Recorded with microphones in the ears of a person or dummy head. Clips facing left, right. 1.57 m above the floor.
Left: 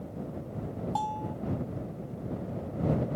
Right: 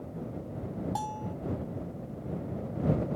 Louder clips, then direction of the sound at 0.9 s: Left 2 dB; 20° right (ahead or behind).